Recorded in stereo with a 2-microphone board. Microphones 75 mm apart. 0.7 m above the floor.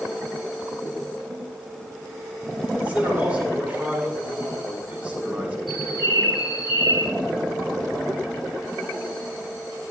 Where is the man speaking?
20° right (ahead or behind), 8.5 m.